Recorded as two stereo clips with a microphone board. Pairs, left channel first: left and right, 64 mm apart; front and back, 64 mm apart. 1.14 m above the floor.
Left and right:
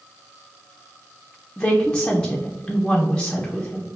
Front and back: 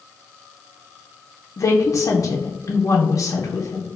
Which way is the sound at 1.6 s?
15° left.